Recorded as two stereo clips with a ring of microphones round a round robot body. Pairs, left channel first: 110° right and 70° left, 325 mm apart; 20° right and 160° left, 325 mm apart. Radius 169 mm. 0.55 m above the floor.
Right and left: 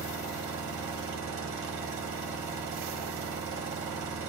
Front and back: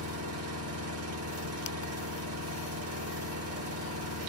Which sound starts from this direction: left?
An engine running, at 0.0 s.